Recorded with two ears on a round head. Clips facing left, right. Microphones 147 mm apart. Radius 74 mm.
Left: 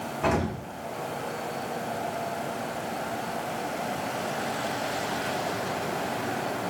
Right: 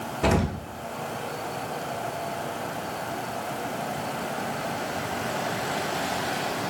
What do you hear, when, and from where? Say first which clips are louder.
0.2 s an explosion: right 2 dB; 40° right (ahead or behind), 0.8 m